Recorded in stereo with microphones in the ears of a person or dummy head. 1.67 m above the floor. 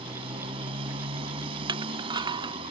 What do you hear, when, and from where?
0.0 s a motorcycle: 35° right (ahead or behind)
1.7 s crushing: 20° right (ahead or behind)